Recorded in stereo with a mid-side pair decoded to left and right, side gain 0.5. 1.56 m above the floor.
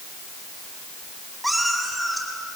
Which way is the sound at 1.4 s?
Straight ahead.